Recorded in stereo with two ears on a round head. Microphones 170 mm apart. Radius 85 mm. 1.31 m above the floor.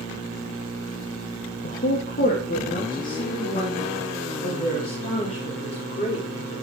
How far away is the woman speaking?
About 2 m.